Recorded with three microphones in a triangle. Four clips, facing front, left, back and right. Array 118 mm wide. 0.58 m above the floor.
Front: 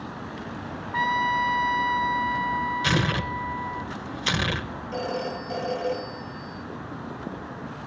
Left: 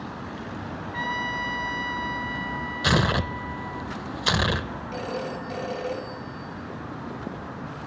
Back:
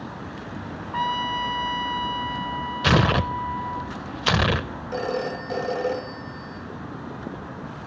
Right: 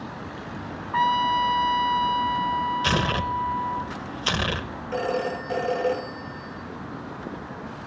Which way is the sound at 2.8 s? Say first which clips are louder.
Even, back 5 dB; 170° left.